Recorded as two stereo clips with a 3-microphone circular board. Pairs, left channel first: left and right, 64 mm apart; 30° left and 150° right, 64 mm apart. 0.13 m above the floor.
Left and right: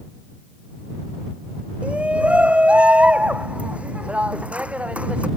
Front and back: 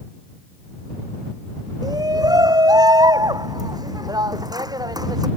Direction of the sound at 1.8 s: 160° right.